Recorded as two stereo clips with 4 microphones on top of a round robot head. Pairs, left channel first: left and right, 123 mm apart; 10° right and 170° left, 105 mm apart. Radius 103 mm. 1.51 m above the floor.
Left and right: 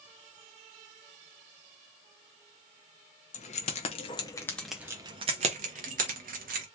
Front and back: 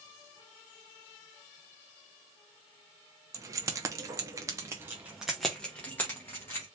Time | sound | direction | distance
3.3 | keys jangling | 110° left | 0.9 m